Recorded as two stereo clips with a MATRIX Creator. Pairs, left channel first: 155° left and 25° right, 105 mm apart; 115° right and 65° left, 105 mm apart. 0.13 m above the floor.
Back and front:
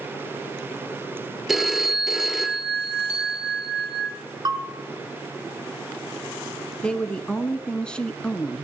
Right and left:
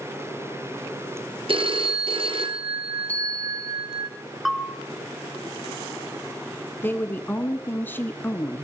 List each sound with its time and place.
1.5 s a phone ringing: 65° left, 1.6 m
3.1 s a bicycle bell: 35° right, 3.5 m
4.5 s a bell: 25° right, 2.0 m
6.8 s a woman speaking: 140° right, 1.0 m